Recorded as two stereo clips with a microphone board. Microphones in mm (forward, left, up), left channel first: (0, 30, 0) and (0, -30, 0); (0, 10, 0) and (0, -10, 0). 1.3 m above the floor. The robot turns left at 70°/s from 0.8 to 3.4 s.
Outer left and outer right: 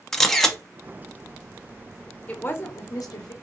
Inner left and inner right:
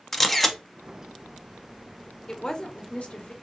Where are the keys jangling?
I don't hear keys jangling.